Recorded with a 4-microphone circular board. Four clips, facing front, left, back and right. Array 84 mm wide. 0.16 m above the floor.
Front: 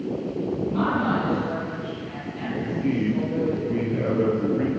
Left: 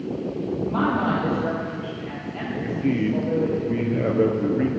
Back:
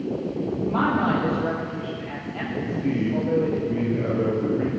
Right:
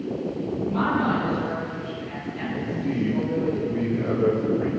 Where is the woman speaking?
145° left, 5 m.